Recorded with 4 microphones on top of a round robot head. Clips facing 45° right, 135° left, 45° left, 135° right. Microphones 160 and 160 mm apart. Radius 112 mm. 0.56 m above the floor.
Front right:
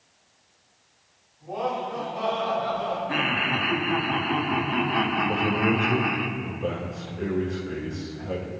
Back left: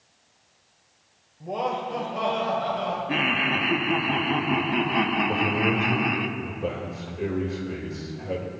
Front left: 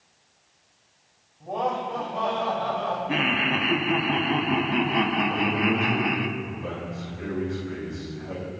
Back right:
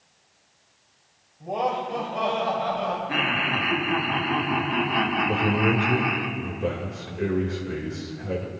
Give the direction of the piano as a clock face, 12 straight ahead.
I don't hear a piano.